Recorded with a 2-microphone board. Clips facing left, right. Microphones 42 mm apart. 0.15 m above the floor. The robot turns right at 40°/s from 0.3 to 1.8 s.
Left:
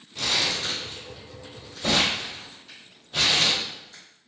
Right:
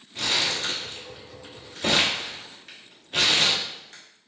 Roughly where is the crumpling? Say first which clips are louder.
Even; right.